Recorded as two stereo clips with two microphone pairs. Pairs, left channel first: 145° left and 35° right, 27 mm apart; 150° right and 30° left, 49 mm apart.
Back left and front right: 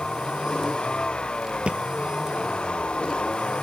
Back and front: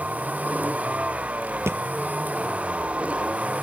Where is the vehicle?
90° left; by 3.6 s 95° left.